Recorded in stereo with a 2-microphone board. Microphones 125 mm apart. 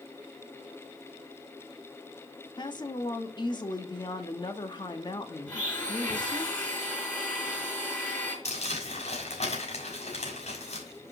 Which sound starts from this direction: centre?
A blender, at 5.5 s.